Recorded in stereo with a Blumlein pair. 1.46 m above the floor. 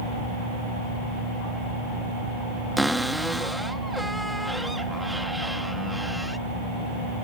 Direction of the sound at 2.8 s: Straight ahead.